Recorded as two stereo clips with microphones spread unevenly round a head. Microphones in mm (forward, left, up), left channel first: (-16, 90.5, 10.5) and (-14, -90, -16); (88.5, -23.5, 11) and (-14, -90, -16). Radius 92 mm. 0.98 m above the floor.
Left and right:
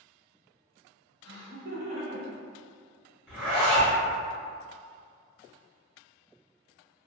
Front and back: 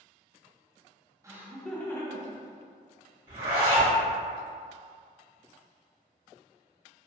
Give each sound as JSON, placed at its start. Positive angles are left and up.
{"t": 1.2, "sound": "laughter", "azimuth_deg": -90, "distance_m": 0.7}
{"t": 3.3, "sound": "a zipper", "azimuth_deg": -170, "distance_m": 1.2}